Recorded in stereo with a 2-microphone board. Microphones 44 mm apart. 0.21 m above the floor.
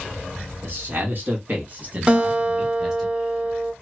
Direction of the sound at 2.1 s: 25° right (ahead or behind).